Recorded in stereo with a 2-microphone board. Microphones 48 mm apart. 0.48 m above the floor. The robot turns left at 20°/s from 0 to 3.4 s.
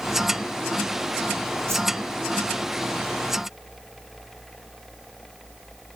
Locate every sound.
1.7 s a whoosh: 65° right (ahead or behind), 1.1 m